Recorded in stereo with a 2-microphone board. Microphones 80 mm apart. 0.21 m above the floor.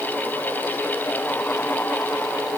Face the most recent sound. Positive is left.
No sound to turn to.